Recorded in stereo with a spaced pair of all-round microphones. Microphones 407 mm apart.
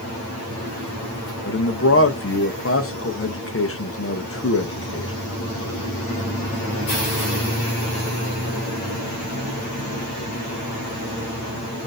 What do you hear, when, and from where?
1.4 s a man speaking: 35° left (ahead or behind), 0.6 m